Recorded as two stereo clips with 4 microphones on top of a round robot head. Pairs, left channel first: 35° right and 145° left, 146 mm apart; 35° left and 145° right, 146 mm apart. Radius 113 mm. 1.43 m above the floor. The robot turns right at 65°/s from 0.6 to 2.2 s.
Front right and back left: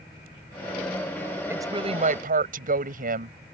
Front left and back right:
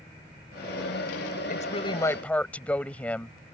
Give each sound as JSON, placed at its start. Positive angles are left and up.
{"t": 1.5, "sound": "a woman speaking", "azimuth_deg": 70}